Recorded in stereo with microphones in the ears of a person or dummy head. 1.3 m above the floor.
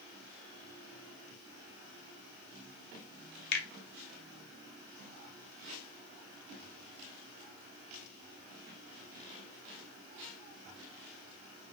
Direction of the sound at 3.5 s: 55° left (ahead or behind).